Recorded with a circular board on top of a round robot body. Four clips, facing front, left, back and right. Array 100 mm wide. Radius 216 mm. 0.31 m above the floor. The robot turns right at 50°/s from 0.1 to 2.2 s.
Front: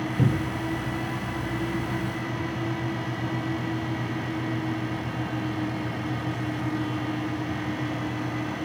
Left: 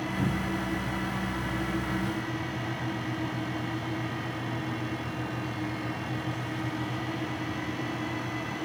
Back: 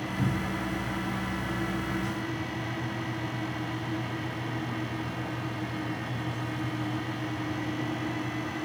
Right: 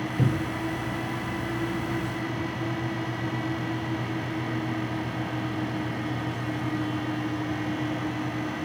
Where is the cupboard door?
35° right, 1.0 m; by 0.7 s 10° right, 1.0 m.